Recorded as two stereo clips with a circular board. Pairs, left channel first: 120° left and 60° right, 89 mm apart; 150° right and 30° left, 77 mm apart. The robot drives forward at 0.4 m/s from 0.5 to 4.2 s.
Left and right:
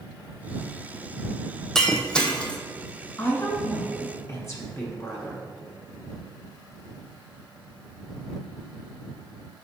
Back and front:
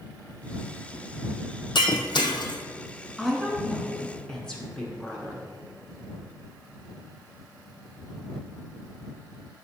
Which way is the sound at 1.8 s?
155° right.